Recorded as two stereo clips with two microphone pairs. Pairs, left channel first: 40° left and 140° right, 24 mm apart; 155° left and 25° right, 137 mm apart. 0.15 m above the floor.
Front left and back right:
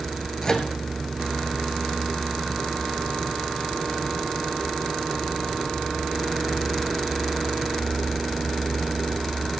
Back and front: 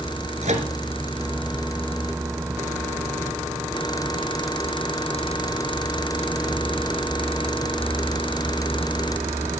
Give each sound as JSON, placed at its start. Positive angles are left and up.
{"t": 0.4, "sound": "a microwave", "azimuth_deg": -15, "distance_m": 1.7}